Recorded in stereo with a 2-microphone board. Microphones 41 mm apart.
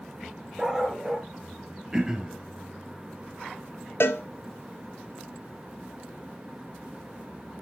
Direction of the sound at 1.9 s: 20° right (ahead or behind).